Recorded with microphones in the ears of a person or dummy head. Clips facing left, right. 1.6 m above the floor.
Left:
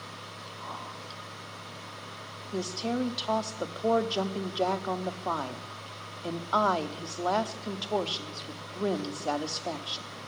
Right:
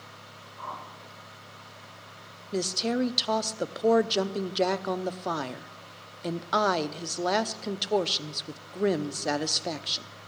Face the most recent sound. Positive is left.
turn(degrees=-25)  # may be behind; listen again after turning